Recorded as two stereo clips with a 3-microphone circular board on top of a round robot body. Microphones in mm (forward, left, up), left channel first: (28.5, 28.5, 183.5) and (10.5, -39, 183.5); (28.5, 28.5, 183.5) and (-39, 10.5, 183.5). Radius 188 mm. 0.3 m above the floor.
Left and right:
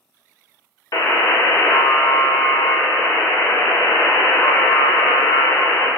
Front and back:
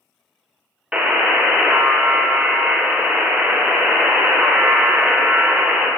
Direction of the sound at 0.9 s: 120° left.